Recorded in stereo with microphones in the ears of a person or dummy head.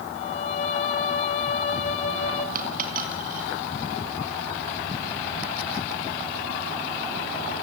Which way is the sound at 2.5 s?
45° right (ahead or behind).